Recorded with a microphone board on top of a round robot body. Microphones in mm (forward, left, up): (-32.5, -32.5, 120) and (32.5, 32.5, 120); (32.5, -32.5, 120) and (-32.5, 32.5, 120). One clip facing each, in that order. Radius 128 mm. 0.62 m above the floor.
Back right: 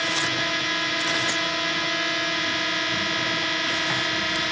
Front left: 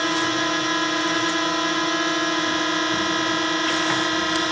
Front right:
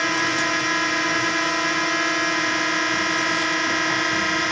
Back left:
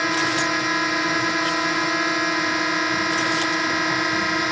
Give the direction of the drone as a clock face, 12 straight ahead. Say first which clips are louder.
Front left 5 dB, back left 1 dB; 10 o'clock.